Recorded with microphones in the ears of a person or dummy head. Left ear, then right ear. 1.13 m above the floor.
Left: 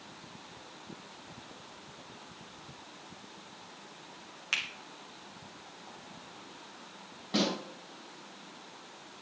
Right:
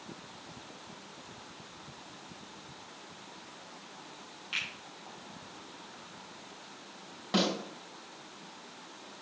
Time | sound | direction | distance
4.5 | a finger snap | 60° left (ahead or behind) | 1.5 m
7.3 | a snare drum | 30° right (ahead or behind) | 3.5 m